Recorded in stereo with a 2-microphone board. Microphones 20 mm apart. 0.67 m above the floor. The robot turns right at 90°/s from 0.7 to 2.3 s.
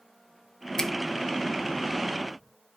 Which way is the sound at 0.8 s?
25° left (ahead or behind).